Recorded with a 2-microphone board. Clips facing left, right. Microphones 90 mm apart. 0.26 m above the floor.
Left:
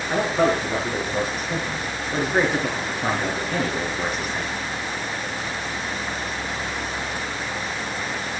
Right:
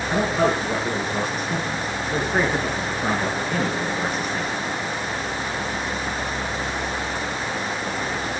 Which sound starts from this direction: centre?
A man speaking, at 0.1 s.